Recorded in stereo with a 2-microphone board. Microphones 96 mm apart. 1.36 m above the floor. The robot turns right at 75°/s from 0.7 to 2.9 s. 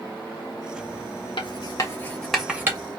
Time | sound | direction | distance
1.4 | writing | 70° left (ahead or behind) | 1.3 m